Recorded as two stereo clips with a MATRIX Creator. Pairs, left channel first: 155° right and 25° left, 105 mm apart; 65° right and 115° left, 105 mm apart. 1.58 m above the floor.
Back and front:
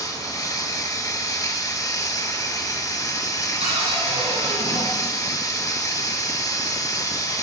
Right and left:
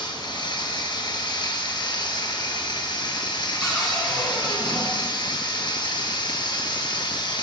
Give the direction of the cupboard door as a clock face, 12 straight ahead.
11 o'clock.